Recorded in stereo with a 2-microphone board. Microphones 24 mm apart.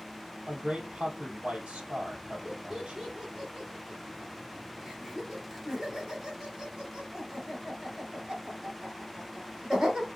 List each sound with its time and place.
0.5 s a man speaking: 65° right (ahead or behind), 2.5 m
2.5 s laughter: 35° right (ahead or behind), 2.0 m